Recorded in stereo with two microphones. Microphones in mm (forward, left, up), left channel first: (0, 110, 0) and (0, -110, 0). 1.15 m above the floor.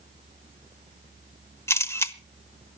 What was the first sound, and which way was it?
A camera shutter, 10° left (ahead or behind).